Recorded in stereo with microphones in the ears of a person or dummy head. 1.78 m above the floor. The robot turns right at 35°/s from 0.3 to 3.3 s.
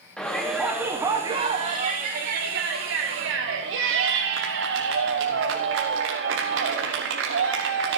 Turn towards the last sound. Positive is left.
turn(degrees=-85)